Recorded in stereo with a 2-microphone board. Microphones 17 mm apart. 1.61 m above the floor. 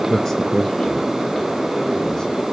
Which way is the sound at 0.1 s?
30° left (ahead or behind).